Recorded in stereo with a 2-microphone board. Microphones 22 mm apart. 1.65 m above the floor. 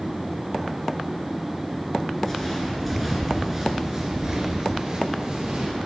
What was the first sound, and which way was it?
Footsteps, 20° left (ahead or behind).